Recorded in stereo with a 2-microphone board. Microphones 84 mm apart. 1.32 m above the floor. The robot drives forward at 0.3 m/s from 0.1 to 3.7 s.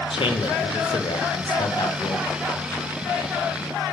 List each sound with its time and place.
0.1 s a man speaking: 80° left, 0.9 m; by 2.4 s 55° left (ahead or behind), 1.1 m